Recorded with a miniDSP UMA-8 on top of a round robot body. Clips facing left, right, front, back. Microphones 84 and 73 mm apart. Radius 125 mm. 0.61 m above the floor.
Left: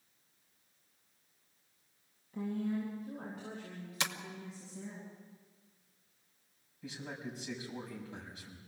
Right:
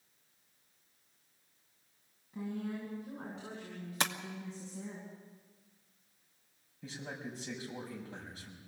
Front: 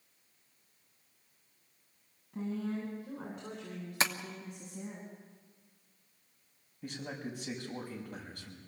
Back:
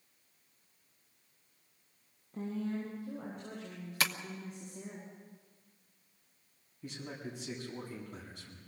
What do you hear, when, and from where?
2.3 s a woman speaking: 20° right, 8.5 m; by 5.0 s 40° right, 7.5 m
4.0 s tapping: 60° right, 1.6 m
6.8 s a man speaking: 35° right, 6.5 m